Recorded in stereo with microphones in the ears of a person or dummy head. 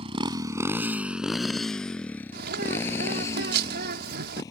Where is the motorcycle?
35° right (ahead or behind); by 4.5 s 20° left (ahead or behind).